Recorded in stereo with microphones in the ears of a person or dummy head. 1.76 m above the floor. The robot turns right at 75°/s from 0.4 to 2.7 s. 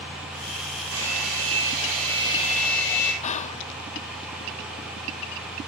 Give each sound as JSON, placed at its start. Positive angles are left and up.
{"t": 0.9, "sound": "a hair dryer", "azimuth_deg": -125, "distance_m": 9.5}
{"t": 3.2, "sound": "whispering", "side_deg": 30, "distance_m": 0.7}